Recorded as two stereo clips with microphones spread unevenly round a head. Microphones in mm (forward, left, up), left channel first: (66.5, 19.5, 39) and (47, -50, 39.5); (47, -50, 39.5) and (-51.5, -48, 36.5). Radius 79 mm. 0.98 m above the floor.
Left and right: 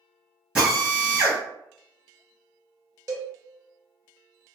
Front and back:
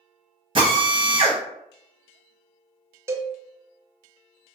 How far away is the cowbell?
About 0.6 m.